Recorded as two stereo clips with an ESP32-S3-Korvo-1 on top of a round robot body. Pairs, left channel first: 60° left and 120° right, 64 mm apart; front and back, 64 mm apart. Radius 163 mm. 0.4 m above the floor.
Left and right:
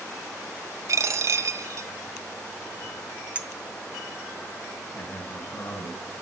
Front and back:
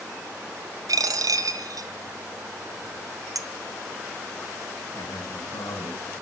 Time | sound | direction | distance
0.9 | a dropped coin | 160° right | 0.9 m
3.4 | a clink | 175° left | 1.1 m
4.9 | a man speaking | 15° left | 5.5 m